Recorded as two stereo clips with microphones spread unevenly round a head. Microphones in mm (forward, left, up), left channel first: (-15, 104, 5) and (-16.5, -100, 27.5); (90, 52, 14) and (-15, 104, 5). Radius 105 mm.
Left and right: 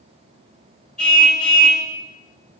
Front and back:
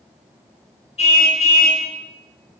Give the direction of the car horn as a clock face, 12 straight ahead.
12 o'clock.